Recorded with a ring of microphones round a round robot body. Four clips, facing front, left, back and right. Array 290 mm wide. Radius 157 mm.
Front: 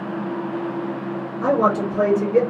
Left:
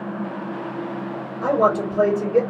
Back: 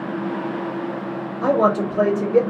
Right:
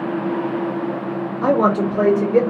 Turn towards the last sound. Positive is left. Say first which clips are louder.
# right 2 dB, back 1 dB
turn(degrees=-85)